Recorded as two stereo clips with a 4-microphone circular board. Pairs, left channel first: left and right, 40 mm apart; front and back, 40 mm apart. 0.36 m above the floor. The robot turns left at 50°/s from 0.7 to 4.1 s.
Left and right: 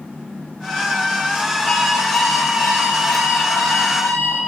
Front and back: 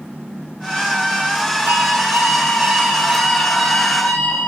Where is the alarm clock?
Straight behind, 5 m; by 4.5 s 55° left, 5 m.